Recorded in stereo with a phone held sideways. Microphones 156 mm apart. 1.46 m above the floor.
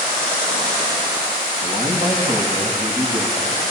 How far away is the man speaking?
About 8.5 m.